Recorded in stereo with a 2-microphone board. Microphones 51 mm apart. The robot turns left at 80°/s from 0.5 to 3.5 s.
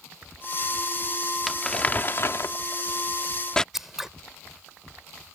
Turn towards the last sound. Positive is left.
turn(degrees=-5)  # may be behind; listen again after turning